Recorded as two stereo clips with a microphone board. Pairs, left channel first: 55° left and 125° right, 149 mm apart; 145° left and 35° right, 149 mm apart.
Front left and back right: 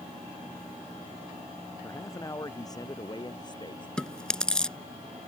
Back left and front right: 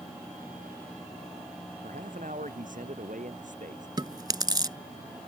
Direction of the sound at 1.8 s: 15° right.